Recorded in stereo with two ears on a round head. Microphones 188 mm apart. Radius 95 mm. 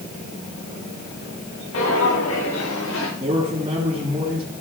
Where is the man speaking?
30° right (ahead or behind), 3 m.